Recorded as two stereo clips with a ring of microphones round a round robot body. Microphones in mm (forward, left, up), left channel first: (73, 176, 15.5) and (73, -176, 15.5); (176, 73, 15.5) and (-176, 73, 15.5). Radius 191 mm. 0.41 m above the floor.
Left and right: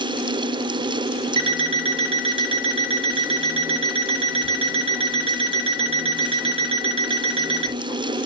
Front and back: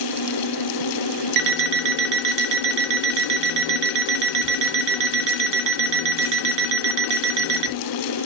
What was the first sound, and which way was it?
An alarm clock, 160° right.